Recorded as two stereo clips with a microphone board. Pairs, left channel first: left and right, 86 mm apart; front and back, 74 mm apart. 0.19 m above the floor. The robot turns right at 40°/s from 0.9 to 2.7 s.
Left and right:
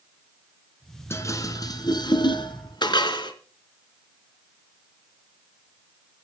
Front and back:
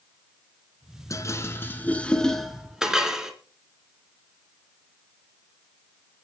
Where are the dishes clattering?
35° left, 1.6 m; by 3.3 s 100° left, 1.6 m.